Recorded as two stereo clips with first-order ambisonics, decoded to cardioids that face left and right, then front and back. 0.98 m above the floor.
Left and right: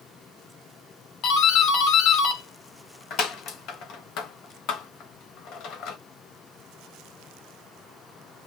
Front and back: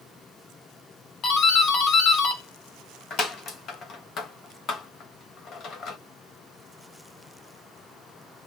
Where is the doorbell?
50° left, 1.3 m.